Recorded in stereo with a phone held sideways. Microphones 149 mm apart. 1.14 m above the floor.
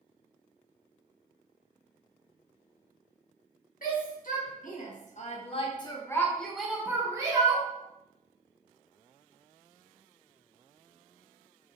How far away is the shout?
About 1.6 m.